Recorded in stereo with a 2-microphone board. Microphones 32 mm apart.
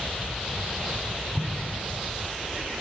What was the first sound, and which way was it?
An explosion, 20° left (ahead or behind).